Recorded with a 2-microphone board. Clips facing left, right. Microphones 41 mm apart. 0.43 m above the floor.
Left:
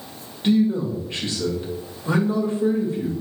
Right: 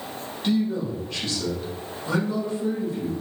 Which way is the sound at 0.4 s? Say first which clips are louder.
Left 5 dB; 25° left (ahead or behind).